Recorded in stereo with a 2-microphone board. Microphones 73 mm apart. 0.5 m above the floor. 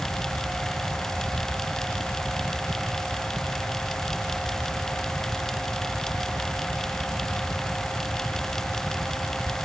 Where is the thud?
No thud in this recording.